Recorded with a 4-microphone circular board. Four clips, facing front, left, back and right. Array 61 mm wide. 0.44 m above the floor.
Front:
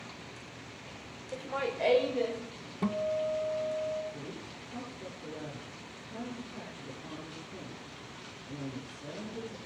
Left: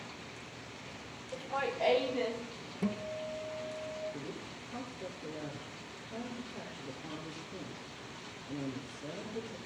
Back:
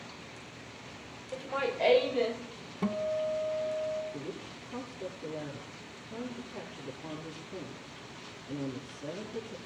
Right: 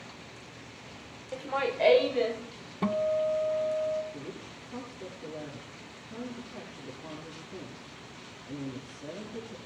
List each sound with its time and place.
1.3 s laughter: 85° right, 1.2 m; by 2.4 s 110° right, 2.0 m
2.8 s a guitar: 90° right, 1.1 m
4.1 s a woman speaking: 135° right, 7.5 m